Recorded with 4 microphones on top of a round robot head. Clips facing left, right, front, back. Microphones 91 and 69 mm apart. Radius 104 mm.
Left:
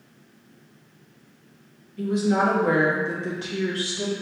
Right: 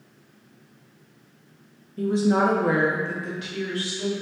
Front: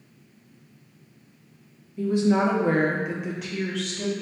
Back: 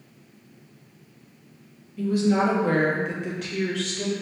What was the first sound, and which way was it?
A woman speaking, 60° right.